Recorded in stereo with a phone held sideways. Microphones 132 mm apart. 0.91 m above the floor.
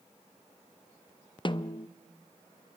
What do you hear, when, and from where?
1.4 s a snare drum: 35° left (ahead or behind), 0.5 m